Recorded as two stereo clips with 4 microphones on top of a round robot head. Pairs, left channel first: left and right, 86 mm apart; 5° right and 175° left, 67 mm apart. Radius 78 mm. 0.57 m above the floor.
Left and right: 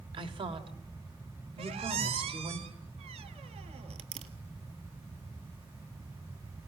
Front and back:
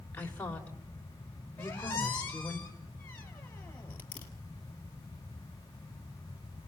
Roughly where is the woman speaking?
Right.